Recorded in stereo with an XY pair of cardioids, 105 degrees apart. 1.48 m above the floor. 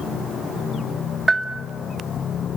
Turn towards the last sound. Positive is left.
turn(degrees=-25)